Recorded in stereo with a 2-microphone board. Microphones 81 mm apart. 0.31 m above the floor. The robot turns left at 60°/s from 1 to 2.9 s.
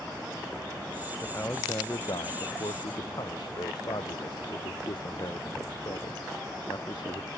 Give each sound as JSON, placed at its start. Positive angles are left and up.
{"t": 1.2, "sound": "a man speaking", "azimuth_deg": 165}